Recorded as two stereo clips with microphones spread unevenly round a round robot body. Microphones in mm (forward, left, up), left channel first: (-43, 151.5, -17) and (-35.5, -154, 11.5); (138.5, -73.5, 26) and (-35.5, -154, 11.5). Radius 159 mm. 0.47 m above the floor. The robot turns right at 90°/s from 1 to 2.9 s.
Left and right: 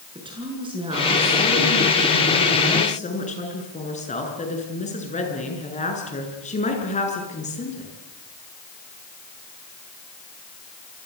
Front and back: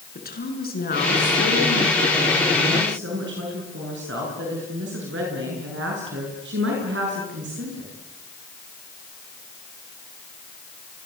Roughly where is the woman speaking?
Ahead.